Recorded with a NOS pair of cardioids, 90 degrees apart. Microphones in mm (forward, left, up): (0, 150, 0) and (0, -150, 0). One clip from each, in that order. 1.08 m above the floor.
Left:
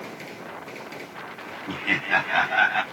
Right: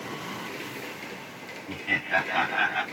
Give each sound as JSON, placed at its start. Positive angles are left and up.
{"t": 1.7, "sound": "laughter", "azimuth_deg": 65, "distance_m": 1.1}